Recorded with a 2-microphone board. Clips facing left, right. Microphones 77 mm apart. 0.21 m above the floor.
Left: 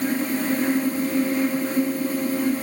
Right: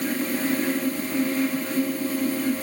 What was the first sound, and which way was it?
Only background noise.